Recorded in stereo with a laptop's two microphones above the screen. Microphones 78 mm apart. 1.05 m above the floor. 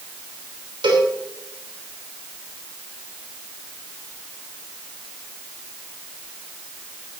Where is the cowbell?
80° right, 3 m.